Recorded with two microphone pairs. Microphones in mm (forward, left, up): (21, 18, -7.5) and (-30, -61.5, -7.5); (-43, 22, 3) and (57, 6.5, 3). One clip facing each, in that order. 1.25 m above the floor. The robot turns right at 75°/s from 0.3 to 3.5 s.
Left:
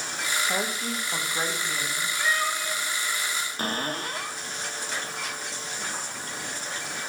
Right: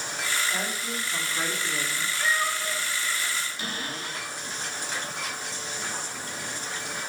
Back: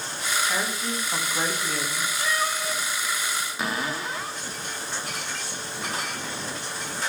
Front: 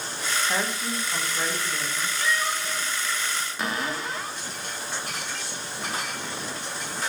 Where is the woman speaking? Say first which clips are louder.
Left 2 dB, even; 50° left, 1.7 m; by 2.1 s 175° left, 1.7 m.